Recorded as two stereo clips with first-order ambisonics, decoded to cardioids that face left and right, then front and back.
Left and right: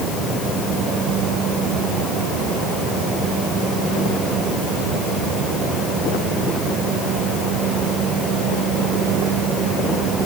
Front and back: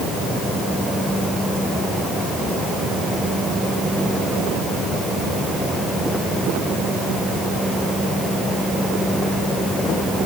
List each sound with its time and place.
Only background noise.